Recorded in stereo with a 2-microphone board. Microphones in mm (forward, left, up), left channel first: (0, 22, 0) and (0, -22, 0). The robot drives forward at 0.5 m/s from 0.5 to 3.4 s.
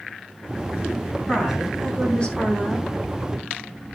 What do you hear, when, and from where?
1.3 s a woman speaking: 20° left (ahead or behind), 3 m; by 2.9 s 25° left (ahead or behind), 2.5 m